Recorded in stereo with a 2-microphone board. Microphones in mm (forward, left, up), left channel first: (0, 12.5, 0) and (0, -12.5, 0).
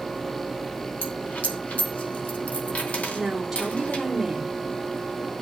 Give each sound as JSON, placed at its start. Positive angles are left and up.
{"t": 1.0, "sound": "a dropped coin", "side_deg": 70, "distance_m": 2.5}
{"t": 3.1, "sound": "a woman speaking", "side_deg": 0, "distance_m": 3.0}